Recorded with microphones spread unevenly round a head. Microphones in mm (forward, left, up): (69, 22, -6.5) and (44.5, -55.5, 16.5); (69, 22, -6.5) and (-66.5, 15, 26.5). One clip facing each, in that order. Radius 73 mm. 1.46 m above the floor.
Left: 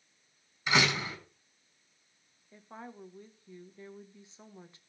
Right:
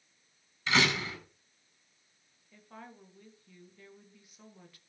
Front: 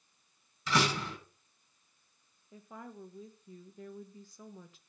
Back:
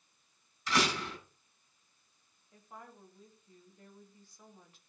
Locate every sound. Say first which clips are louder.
0.7 s a door slam: even, front 1 dB; straight ahead, 9 m
2.5 s a woman speaking: left 3 dB, front 5 dB; 10° left, 2 m